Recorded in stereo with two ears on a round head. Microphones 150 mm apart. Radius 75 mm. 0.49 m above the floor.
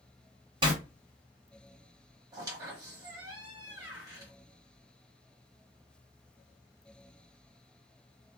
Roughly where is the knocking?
No knocking in this recording.